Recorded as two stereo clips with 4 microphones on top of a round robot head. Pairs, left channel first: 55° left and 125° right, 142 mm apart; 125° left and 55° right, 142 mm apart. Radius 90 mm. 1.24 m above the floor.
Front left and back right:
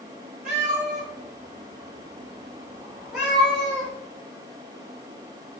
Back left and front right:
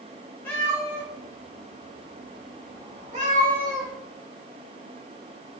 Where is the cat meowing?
155° right, 1.4 m; by 3.9 s 25° right, 1.3 m.